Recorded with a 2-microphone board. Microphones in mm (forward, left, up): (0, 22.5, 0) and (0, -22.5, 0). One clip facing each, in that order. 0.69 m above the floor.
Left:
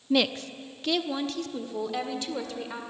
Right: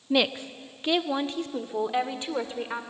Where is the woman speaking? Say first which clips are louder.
Even; 15° right (ahead or behind), 0.6 m; by 2.8 s 25° right (ahead or behind), 2 m.